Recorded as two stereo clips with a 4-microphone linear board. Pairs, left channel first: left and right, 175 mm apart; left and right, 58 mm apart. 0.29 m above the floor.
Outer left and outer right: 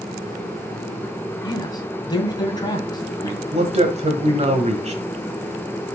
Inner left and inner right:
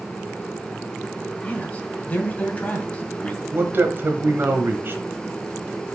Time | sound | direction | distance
1.4 | a man speaking | 25° left (ahead or behind) | 1.9 m
3.5 | a man speaking | 40° right (ahead or behind) | 1.2 m